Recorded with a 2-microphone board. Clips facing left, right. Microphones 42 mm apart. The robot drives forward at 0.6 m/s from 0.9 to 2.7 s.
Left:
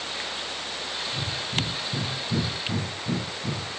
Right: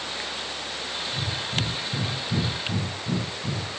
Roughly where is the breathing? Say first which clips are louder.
Right 1 dB; left.